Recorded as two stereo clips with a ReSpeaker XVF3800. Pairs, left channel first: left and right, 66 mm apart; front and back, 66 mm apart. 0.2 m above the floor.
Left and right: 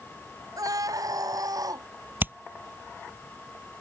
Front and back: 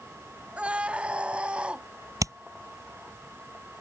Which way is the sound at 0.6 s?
110° right.